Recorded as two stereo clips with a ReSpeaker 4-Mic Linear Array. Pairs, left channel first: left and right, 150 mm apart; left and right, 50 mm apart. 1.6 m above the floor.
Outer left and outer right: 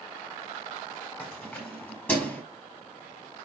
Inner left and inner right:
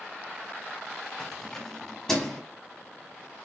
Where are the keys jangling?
10° left (ahead or behind), 4 m.